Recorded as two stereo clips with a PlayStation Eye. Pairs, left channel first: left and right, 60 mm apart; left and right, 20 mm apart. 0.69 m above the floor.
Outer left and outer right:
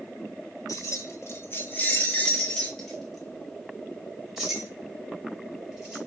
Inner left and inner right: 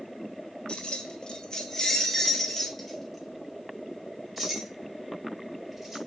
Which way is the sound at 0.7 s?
70° left (ahead or behind).